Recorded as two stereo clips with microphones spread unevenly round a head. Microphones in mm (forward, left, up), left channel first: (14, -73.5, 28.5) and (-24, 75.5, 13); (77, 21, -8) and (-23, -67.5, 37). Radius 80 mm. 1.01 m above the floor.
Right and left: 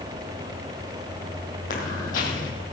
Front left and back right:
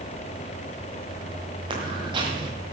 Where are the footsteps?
105° right, 2.5 m.